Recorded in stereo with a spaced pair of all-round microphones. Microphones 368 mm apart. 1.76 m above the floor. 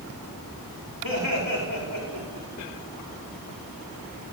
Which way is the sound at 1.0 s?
70° right (ahead or behind).